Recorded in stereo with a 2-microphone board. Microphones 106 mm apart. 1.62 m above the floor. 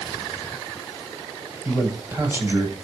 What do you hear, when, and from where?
1.6 s a man speaking: 20° right (ahead or behind), 8.5 m